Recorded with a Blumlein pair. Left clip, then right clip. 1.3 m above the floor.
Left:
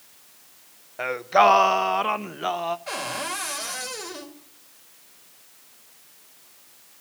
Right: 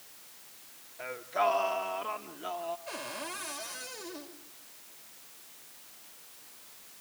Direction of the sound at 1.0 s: 50° left.